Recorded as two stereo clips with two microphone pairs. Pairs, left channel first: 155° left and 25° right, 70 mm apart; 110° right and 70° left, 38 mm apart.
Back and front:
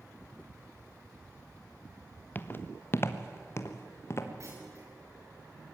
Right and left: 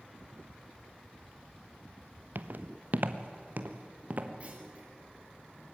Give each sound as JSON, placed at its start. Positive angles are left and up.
{"t": 2.4, "sound": "footsteps", "azimuth_deg": 95, "distance_m": 1.1}
{"t": 4.4, "sound": "a clunk", "azimuth_deg": 15, "distance_m": 4.5}